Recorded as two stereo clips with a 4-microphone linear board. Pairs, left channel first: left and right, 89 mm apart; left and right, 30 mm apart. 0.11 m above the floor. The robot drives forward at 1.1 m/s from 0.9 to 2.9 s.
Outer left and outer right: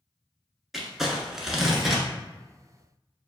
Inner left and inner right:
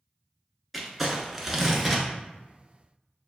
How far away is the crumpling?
About 0.9 m.